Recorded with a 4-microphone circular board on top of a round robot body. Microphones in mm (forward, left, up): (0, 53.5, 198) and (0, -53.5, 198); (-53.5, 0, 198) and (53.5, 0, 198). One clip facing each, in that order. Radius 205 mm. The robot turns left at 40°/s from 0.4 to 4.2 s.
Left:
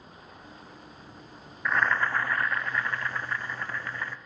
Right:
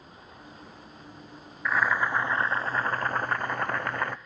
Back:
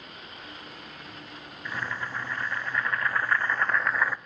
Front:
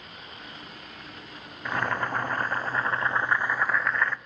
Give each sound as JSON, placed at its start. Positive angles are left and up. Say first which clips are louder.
{"t": 1.6, "sound": "boiling", "louder": "right 1 dB, front 7 dB", "azimuth_deg": 0, "distance_m": 0.5}